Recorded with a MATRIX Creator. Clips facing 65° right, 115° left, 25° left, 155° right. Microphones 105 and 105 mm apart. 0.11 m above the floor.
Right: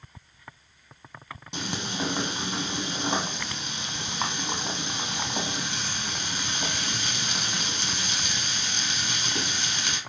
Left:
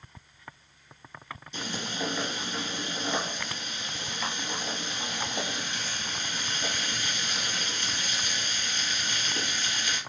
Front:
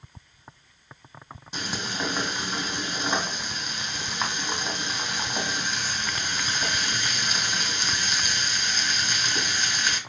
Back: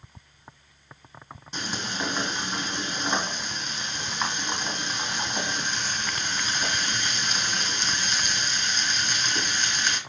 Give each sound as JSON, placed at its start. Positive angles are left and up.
{"t": 1.5, "sound": "frying", "azimuth_deg": -60, "distance_m": 1.9}